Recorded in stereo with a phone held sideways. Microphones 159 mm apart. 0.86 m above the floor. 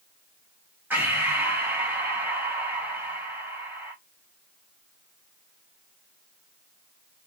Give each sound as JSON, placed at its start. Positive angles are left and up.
{"t": 0.9, "sound": "breathing", "side_deg": -10, "distance_m": 1.1}